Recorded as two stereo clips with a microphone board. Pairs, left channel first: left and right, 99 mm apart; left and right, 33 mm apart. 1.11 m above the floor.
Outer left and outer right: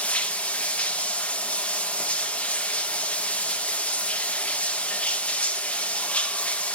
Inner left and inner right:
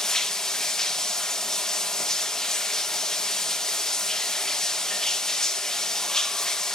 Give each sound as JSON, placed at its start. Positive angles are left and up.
{"t": 0.0, "sound": "running water", "side_deg": 10, "distance_m": 0.7}